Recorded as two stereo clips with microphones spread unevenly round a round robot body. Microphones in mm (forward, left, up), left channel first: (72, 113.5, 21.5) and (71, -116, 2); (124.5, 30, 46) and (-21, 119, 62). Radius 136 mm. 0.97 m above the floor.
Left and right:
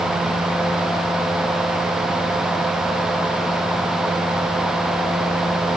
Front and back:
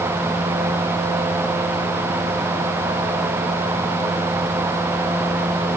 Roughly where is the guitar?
No guitar in this recording.